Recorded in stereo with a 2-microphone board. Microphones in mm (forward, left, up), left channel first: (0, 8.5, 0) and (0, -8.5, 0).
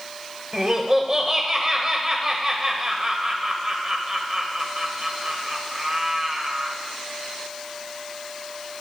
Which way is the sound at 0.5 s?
25° right (ahead or behind).